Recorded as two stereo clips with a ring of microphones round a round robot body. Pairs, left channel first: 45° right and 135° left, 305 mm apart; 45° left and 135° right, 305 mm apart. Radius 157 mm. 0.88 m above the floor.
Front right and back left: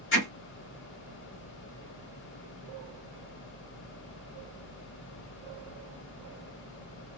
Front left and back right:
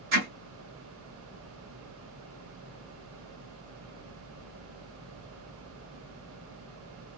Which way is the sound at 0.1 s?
100° right.